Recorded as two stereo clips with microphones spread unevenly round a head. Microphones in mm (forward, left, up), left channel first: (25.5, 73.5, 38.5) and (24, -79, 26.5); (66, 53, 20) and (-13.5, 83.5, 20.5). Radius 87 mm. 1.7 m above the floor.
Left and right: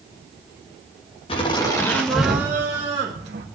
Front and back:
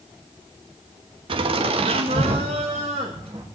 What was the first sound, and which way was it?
Laughter, 150° left.